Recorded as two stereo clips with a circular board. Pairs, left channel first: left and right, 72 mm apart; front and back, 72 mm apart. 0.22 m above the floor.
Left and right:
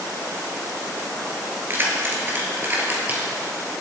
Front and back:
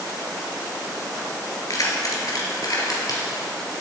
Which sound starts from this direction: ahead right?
Keys jangling, at 1.7 s.